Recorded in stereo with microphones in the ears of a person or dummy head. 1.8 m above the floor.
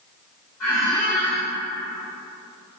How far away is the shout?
No shout in this recording.